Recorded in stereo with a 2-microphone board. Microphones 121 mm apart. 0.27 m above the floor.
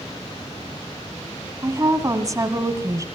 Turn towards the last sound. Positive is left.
turn(degrees=-25)  # may be behind; listen again after turning